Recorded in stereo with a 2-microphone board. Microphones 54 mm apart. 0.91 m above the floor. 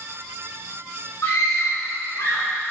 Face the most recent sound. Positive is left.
turn(degrees=75)  # may be behind; listen again after turning